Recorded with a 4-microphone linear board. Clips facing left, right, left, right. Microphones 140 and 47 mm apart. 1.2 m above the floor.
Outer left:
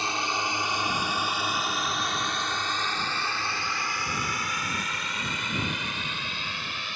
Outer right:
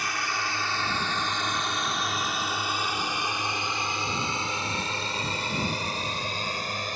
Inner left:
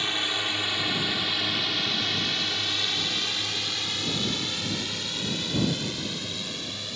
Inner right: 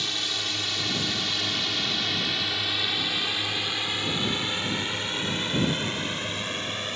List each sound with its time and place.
0.0 s a drone: 30° left (ahead or behind); by 7.0 s 45° right (ahead or behind)